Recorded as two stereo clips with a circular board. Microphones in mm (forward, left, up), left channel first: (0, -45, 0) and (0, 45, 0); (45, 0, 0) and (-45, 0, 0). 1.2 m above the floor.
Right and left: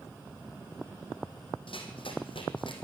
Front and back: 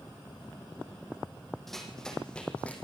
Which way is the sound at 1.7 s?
90° right.